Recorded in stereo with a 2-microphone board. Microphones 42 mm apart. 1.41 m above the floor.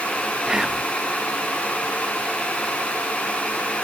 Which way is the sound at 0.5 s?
15° right (ahead or behind).